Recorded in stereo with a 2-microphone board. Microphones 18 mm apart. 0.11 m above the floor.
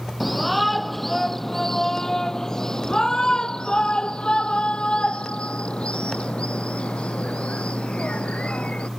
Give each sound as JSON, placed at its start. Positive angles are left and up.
{"t": 0.2, "sound": "a shout", "side_deg": -5}